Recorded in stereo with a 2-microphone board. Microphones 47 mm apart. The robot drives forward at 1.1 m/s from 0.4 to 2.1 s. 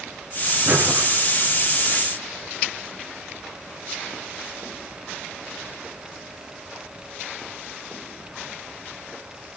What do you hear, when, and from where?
0.7 s breathing: 45° right (ahead or behind), 1.9 m; by 1.1 s 50° right (ahead or behind), 1.9 m